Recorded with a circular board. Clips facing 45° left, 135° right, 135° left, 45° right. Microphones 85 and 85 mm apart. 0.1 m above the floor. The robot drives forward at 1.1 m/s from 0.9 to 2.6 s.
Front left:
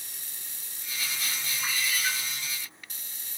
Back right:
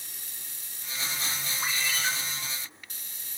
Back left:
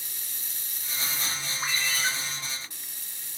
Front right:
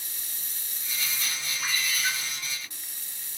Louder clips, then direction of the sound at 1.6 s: Even, back left 1 dB; 160° right.